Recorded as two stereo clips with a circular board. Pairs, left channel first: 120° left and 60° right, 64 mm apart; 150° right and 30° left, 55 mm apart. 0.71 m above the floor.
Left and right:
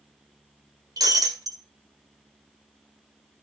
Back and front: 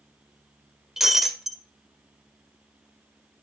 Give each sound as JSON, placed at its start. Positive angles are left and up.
{"t": 1.0, "sound": "breaking glass", "azimuth_deg": -55, "distance_m": 1.8}